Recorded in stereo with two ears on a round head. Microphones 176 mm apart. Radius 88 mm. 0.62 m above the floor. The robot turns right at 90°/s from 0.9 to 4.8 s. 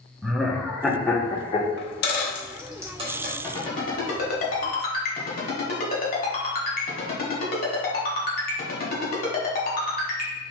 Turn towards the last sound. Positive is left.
turn(degrees=50)  # may be behind; listen again after turning